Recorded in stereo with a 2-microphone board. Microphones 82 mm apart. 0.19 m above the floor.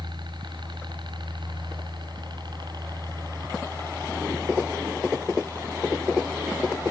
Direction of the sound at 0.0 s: 65° right (ahead or behind).